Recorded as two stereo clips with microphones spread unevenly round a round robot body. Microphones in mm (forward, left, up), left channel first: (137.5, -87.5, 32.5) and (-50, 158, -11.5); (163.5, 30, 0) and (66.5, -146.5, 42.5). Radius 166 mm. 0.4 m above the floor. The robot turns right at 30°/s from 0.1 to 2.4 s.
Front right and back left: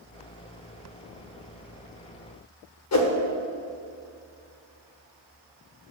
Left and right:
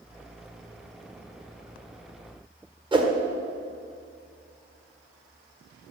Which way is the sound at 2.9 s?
50° right.